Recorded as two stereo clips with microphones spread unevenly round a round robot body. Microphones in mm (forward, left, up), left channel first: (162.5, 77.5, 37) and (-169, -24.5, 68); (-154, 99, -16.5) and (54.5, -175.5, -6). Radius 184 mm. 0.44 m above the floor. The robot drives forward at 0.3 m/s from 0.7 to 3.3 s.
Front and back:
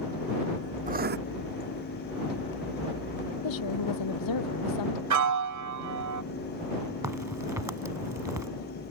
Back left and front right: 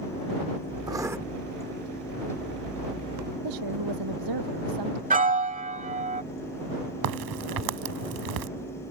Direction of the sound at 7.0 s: 80° right.